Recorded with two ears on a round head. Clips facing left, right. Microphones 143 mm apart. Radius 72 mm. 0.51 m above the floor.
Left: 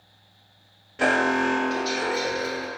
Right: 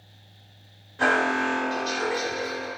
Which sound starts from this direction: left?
An alarm, at 1.0 s.